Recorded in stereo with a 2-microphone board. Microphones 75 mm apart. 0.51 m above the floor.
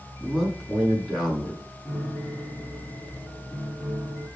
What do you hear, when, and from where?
0.2 s a man speaking: 5° left (ahead or behind), 6 m
1.9 s a piano: 10° left (ahead or behind), 5.5 m